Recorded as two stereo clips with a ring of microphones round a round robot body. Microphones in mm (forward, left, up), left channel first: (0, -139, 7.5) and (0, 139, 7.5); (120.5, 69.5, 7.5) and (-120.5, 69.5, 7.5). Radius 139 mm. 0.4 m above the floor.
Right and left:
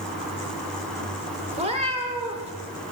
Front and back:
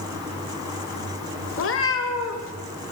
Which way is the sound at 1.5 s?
25° left.